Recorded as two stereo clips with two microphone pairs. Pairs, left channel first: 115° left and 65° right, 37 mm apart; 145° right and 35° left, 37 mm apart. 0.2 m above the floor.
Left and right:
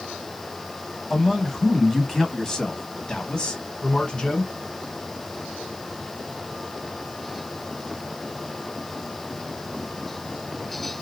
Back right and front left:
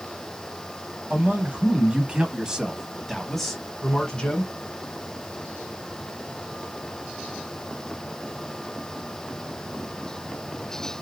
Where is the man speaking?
30° left, 1.3 m; by 4.5 s 170° left, 1.3 m.